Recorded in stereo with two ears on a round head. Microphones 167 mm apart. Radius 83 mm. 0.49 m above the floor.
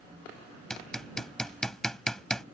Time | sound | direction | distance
0.7 | hammering | 5° left (ahead or behind) | ?